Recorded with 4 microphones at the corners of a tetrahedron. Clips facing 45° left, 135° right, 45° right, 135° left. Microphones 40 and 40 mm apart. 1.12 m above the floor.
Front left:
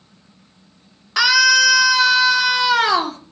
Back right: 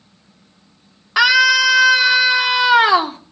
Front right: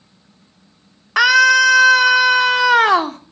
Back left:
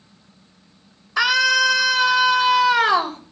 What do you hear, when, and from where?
1.2 s a scream: 60° right, 2.5 m